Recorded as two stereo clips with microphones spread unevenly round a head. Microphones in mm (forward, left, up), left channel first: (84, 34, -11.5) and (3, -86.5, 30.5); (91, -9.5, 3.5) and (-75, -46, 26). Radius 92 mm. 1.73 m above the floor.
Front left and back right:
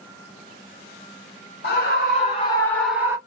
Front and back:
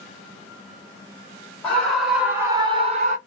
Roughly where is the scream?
Left.